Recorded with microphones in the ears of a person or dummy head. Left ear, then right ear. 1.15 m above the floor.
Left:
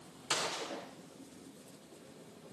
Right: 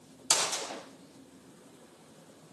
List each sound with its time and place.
0.3 s a gunshot: 30° right (ahead or behind), 0.8 m